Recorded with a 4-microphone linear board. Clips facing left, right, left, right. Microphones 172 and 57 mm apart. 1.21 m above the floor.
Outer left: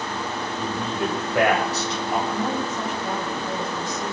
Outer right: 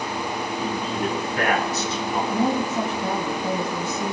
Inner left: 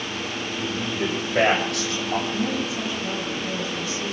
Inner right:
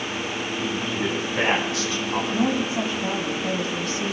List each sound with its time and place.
0.6 s a man speaking: 75° left (ahead or behind), 7 m
2.3 s a woman speaking: 50° right (ahead or behind), 2.5 m